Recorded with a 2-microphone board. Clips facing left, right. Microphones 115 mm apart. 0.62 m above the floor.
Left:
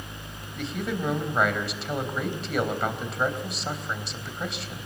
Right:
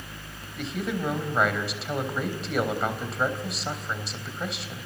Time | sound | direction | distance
0.6 | a man speaking | centre (ahead or behind) | 3.5 m